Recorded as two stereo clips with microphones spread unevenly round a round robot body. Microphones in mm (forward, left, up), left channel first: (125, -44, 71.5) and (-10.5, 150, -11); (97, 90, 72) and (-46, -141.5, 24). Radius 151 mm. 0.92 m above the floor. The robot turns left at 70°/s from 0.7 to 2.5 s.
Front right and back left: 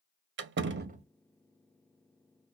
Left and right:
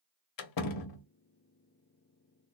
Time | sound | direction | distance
0.4 | a door slam | 80° left | 0.9 m